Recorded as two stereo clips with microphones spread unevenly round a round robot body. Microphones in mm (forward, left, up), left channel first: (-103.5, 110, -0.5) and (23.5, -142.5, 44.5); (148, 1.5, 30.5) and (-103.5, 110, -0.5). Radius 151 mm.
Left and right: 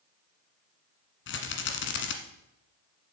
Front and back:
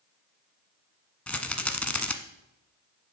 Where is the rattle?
65° left, 1.3 m.